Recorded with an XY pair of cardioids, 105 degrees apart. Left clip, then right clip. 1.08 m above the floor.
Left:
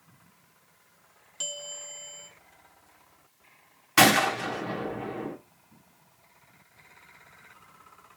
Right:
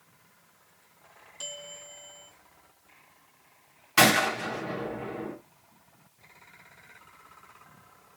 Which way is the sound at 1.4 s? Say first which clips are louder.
Left 4 dB; 40° left.